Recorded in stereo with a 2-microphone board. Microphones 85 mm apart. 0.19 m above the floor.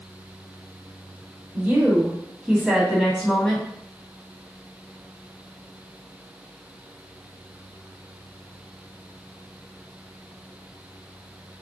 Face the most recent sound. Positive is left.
turn(degrees=10)  # may be behind; listen again after turning